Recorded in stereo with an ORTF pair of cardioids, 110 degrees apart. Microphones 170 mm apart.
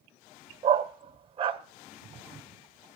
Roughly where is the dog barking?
Ahead right.